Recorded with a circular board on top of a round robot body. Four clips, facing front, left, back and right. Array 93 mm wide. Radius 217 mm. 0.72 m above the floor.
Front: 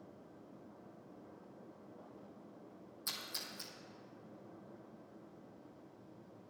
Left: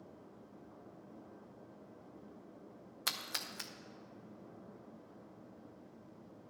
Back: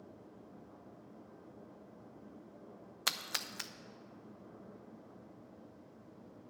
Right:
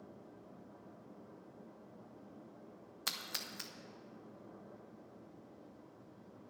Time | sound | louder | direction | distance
3.1 | a splash | left 3 dB, back 8 dB | 170° left | 0.8 m